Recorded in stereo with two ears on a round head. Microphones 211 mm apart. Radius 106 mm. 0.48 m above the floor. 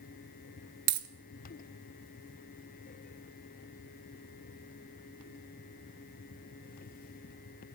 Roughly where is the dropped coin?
Right.